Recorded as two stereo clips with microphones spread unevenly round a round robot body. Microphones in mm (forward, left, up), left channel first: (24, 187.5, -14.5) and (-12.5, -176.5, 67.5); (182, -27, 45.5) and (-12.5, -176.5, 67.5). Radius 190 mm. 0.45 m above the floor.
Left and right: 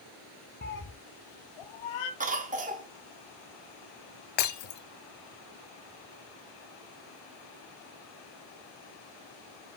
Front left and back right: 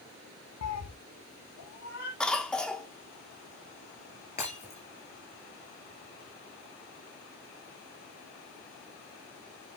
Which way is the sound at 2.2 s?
30° right.